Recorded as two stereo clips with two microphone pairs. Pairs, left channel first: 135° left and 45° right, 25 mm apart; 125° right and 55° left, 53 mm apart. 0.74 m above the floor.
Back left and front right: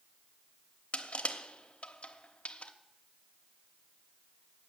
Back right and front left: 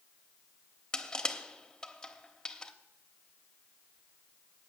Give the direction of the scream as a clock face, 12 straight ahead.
No scream in this recording.